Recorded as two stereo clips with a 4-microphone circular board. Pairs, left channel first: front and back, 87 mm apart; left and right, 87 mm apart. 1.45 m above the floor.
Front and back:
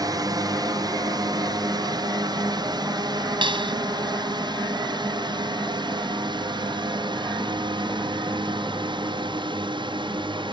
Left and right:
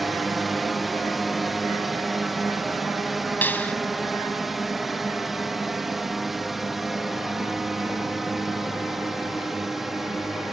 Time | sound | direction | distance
0.0 | a drone | straight behind | ?
3.4 | a clap | 160° left | ?